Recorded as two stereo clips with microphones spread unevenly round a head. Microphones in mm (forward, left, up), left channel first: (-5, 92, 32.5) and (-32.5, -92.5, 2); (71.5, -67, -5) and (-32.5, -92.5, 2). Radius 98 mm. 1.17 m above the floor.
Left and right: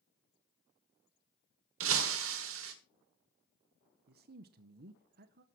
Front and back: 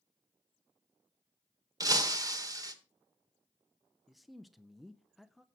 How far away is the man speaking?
About 0.6 m.